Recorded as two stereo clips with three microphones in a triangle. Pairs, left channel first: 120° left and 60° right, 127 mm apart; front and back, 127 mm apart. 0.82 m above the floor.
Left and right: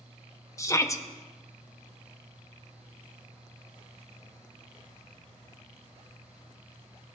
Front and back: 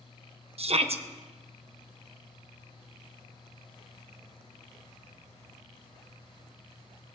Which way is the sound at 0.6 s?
Straight behind.